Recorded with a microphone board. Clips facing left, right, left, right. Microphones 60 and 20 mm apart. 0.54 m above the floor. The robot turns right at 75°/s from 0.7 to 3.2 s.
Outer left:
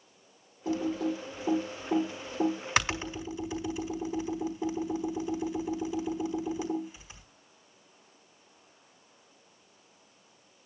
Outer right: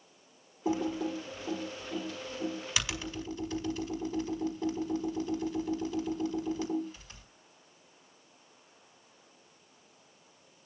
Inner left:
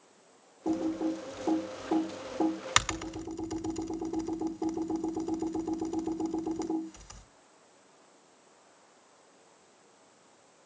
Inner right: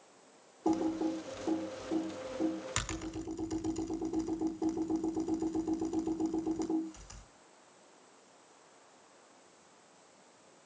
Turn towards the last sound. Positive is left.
turn(degrees=15)  # may be behind; listen again after turning